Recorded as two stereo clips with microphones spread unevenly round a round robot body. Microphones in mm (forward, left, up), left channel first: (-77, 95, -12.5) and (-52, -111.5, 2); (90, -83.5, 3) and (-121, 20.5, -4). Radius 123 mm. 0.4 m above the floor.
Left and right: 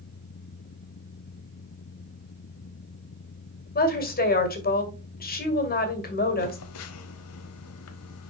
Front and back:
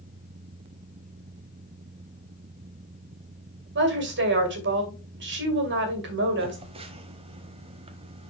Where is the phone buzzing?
85° left, 0.8 m.